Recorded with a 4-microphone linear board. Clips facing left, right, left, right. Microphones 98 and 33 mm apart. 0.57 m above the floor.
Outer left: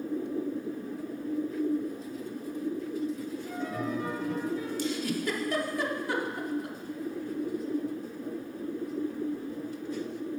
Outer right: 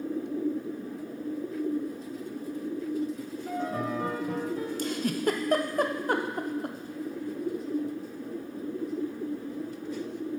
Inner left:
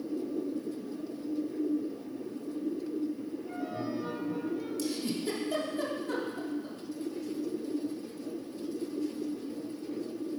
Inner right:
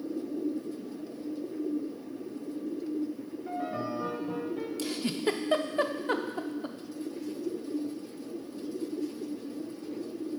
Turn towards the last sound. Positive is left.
turn(degrees=-45)  # may be behind; listen again after turning